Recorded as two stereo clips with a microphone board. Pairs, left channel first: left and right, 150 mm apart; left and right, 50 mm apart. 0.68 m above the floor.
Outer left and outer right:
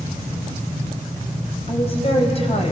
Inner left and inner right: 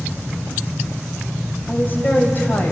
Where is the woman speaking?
40° left (ahead or behind), 3.5 m.